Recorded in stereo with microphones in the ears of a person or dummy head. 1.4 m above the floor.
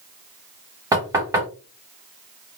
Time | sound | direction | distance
0.9 | knocking | 20° right (ahead or behind) | 1.0 m